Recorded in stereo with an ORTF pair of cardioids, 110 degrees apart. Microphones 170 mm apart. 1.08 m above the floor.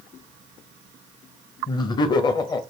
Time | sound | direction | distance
1.7 | laughter | 25° left | 0.6 m